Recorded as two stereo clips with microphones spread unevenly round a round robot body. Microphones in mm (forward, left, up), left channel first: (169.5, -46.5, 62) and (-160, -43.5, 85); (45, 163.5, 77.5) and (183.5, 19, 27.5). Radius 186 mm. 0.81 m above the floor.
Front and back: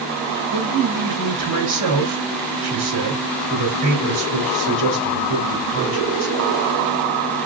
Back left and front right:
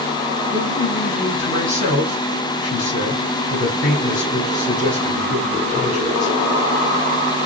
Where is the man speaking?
155° left, 2.5 m.